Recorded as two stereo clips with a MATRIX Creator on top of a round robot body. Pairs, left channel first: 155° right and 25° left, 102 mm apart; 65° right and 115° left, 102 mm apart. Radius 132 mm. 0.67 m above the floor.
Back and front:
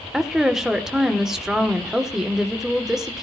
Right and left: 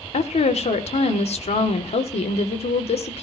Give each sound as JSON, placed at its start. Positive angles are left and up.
{"t": 0.1, "sound": "a woman speaking", "azimuth_deg": -65, "distance_m": 2.0}